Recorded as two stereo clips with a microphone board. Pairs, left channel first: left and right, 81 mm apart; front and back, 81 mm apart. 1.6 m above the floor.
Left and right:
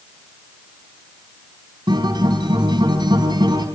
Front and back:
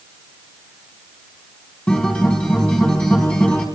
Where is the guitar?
75° right, 3.5 m.